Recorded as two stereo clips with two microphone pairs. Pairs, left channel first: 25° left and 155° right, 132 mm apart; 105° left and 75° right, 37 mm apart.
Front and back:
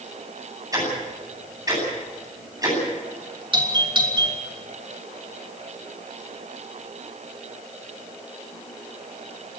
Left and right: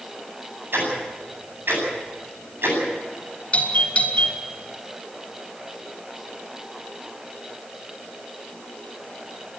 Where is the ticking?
95° right, 9 m.